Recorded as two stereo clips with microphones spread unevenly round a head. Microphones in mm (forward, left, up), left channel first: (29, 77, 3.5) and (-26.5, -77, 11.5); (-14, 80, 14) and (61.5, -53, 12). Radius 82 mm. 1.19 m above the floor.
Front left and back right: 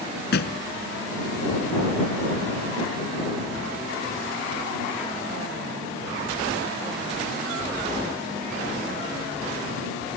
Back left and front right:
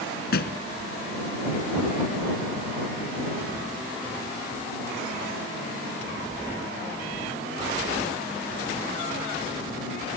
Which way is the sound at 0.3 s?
100° left.